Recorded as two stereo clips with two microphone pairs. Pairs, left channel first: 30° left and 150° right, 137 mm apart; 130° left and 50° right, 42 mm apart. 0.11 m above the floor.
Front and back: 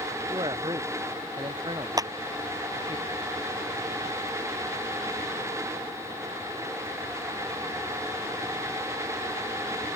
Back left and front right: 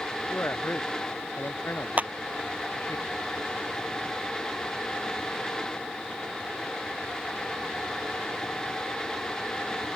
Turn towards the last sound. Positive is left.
turn(degrees=-90)